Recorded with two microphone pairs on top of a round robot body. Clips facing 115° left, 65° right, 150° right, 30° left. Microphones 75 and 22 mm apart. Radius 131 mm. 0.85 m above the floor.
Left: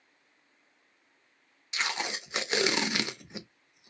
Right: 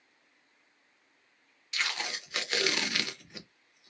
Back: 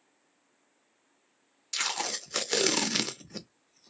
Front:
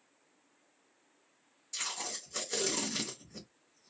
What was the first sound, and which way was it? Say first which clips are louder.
Tape being pulled: left 2 dB, back 7 dB; 170° right.